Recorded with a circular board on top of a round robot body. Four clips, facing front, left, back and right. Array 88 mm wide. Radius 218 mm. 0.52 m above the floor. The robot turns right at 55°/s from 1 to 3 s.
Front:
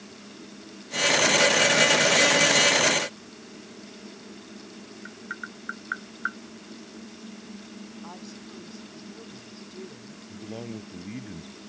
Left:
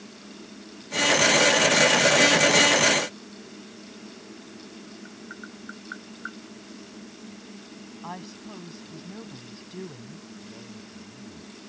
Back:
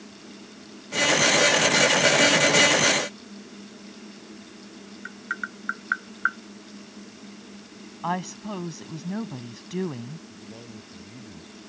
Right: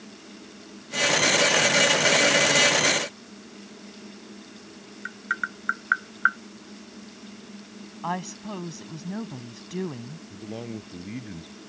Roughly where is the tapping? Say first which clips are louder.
Right 16 dB, back 6 dB; right.